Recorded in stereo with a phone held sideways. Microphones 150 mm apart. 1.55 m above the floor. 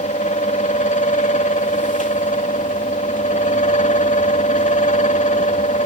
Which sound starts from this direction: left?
A fan, at 0.0 s.